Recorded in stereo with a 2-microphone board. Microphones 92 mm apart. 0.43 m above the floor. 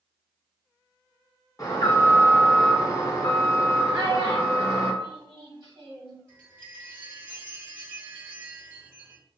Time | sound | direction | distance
1.6 | an alarm | 35° left (ahead or behind) | 0.7 m
3.9 | a child speaking | 60° right (ahead or behind) | 1.3 m
6.3 | a chime | 20° right (ahead or behind) | 1.4 m